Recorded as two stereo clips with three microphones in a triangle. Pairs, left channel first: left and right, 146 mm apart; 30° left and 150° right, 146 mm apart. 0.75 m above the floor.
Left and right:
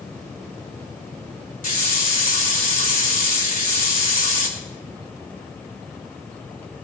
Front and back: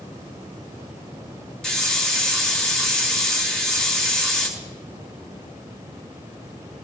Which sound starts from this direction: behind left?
A hiss, at 1.6 s.